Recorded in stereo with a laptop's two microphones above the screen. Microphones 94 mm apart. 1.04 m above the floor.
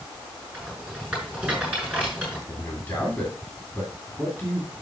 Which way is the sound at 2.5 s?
10° left (ahead or behind).